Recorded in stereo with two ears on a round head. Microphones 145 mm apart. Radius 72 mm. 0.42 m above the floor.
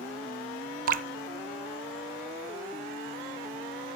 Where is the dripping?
55° right (ahead or behind), 0.7 m.